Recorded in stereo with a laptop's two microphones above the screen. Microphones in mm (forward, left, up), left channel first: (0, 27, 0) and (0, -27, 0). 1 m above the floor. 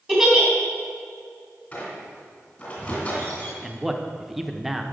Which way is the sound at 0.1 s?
5° right (ahead or behind).